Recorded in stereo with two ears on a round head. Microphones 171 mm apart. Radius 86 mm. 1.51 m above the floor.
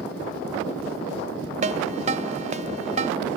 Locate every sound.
1.6 s a ringtone: 35° right (ahead or behind)